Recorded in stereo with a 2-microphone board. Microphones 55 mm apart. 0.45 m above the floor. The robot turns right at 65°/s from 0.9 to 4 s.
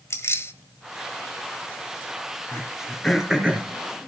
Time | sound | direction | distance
0.1 | keys jangling | 55° left (ahead or behind) | 1.3 m
2.5 | throat clearing | 45° left (ahead or behind) | 3 m